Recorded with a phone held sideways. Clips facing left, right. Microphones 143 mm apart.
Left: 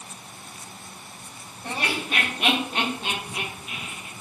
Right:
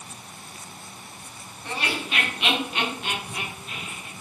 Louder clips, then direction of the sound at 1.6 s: Left 1 dB; 45° left (ahead or behind).